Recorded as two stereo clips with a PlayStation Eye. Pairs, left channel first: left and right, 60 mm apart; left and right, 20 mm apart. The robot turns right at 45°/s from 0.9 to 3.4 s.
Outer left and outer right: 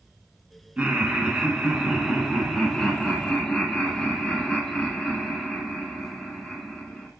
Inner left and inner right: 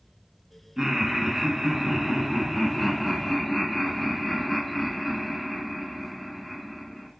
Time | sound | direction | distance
0.8 | laughter | 15° right (ahead or behind) | 1.0 m